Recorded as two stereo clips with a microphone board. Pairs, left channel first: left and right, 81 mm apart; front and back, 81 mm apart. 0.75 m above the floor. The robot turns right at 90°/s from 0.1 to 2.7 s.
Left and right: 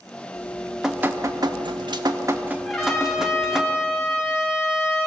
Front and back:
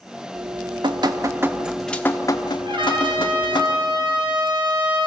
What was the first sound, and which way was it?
Dripping, 140° left.